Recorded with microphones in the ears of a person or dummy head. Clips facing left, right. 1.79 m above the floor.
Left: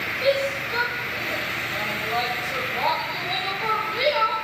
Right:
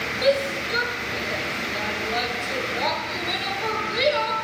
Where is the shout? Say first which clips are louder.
Right 1 dB; 20° right (ahead or behind), 8 m.